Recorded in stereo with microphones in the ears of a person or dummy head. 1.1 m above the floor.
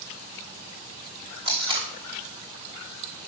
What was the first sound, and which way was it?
Tape being pulled, 30° right (ahead or behind).